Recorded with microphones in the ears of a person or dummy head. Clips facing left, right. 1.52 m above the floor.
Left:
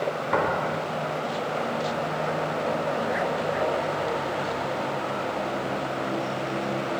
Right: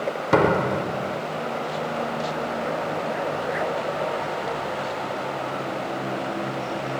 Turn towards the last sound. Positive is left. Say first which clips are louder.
# right 9 dB
turn(degrees=-50)  # may be behind; listen again after turning